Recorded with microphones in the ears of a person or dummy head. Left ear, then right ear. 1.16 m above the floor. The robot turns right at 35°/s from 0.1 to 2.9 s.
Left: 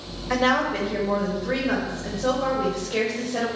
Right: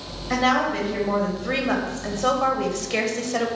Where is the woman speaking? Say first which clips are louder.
Right 1 dB; 150° left, 1.8 m; by 3.5 s 120° right, 1.8 m.